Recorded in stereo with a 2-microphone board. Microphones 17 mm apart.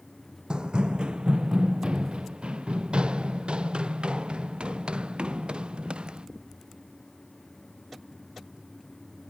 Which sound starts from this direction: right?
Running footsteps, at 0.5 s.